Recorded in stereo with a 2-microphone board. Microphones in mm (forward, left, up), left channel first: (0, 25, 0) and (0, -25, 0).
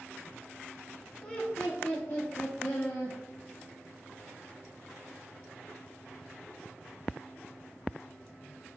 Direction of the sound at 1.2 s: 20° left (ahead or behind).